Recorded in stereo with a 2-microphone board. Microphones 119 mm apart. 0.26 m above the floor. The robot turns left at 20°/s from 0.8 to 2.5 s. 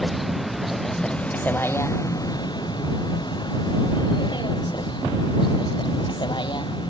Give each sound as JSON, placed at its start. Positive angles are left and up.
{"t": 0.0, "sound": "a vehicle", "side_deg": 0}